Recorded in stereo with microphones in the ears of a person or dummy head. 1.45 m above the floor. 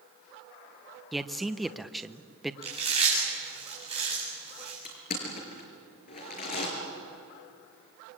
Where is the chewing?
25° right (ahead or behind), 8.5 m.